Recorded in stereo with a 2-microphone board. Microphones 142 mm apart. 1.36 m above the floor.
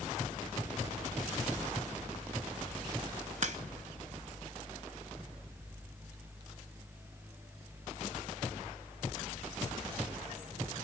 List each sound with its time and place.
3.4 s a crack: 55° right (ahead or behind), 1.1 m